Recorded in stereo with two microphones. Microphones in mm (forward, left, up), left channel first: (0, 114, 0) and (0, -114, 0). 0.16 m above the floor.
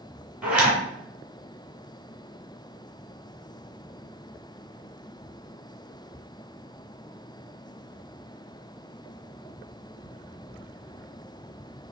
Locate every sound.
0.4 s a zipper: 5° right (ahead or behind), 1.7 m